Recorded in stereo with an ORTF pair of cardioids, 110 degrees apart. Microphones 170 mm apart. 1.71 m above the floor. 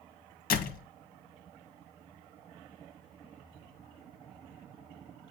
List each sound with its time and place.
0.5 s a door slam: 60° left, 1.6 m